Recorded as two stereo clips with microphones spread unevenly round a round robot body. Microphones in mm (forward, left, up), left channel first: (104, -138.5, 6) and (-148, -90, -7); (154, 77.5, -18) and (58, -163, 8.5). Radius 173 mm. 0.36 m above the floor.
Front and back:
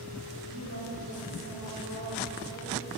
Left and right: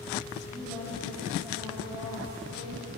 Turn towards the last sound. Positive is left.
turn(degrees=165)